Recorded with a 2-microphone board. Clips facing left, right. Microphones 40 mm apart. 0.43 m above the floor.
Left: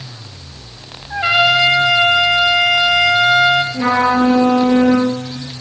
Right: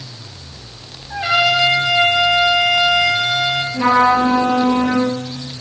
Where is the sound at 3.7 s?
5° right (ahead or behind), 5.5 m.